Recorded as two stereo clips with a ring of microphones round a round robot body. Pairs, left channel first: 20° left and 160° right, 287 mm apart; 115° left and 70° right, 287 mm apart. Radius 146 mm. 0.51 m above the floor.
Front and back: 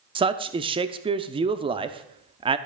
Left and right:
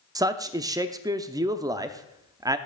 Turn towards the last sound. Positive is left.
turn(degrees=-120)